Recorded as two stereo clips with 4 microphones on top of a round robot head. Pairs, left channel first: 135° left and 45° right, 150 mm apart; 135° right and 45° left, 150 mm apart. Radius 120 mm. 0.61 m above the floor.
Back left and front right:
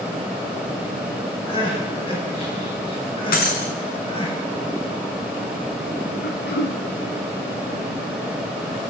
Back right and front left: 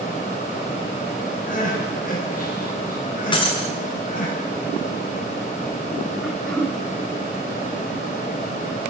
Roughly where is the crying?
Behind.